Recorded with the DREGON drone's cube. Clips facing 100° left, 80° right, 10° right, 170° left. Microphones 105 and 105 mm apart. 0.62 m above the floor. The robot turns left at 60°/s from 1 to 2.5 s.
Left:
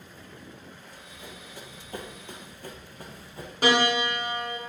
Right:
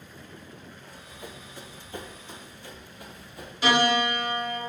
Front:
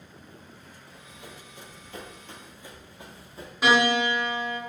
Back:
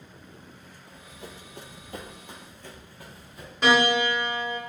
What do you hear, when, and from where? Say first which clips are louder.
0.9 s running footsteps: right 4 dB, back 3 dB; 130° right, 1.4 m; by 3.5 s 40° left, 1.4 m
3.6 s a piano: right 1 dB, even; 70° left, 1.5 m